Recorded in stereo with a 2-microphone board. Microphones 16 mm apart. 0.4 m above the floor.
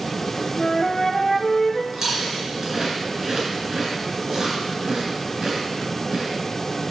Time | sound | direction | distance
0.6 | a flute | 40° left (ahead or behind) | 0.7 m
1.9 | chewing | 40° right (ahead or behind) | 3 m